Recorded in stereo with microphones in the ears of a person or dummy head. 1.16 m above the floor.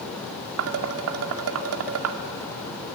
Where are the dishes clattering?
80° right, 1.7 m.